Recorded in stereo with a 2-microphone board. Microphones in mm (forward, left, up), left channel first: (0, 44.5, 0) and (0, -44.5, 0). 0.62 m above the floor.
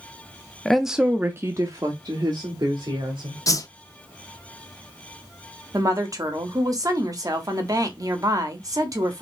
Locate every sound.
0.7 s a woman speaking: 5° left (ahead or behind), 0.5 m; by 3.4 s 60° right (ahead or behind), 1.5 m
3.5 s a whoosh: 40° left (ahead or behind), 0.6 m
5.7 s a woman speaking: 40° right (ahead or behind), 1.1 m